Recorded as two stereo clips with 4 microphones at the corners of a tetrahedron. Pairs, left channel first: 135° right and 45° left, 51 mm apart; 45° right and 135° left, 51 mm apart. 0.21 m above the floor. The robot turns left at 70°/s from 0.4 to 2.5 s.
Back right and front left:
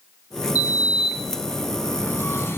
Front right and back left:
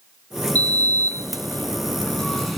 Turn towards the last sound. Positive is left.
turn(degrees=-140)